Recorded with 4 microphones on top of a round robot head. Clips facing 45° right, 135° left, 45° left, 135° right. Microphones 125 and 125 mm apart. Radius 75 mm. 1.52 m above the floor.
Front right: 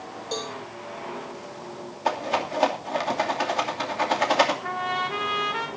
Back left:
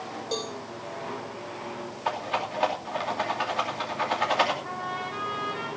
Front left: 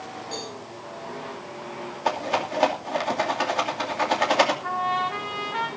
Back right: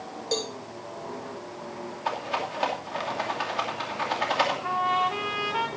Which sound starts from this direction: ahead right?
A trumpet, at 4.6 s.